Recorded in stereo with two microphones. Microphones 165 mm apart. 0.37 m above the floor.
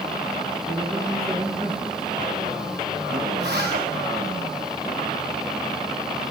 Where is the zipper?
80° right, 7.5 m.